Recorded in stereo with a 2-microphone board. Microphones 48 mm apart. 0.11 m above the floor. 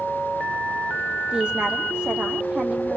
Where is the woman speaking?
20° right (ahead or behind), 4 m.